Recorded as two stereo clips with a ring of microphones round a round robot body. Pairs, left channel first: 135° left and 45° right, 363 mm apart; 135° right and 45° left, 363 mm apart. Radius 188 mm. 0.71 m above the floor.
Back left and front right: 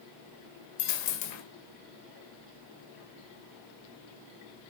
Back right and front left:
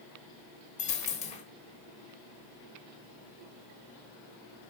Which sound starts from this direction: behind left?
A dropped coin, at 0.8 s.